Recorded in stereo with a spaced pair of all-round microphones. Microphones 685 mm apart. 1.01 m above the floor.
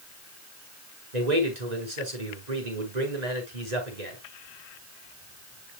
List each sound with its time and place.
1.1 s a man speaking: 75° right (ahead or behind), 4 m